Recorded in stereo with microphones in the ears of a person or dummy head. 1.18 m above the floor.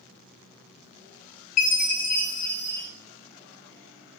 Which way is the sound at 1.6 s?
40° left (ahead or behind).